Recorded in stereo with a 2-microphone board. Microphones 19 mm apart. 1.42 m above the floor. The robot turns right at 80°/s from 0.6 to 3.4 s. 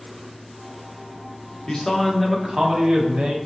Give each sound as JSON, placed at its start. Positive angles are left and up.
{"t": 1.7, "sound": "a man speaking", "azimuth_deg": 135, "distance_m": 0.9}